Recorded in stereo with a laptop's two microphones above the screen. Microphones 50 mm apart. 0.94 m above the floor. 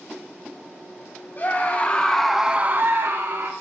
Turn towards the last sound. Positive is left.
turn(degrees=-85)